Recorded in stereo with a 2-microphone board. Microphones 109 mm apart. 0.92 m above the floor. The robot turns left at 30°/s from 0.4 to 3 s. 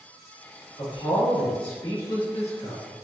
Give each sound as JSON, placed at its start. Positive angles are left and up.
{"t": 0.8, "sound": "a man speaking", "side_deg": 40, "distance_m": 1.7}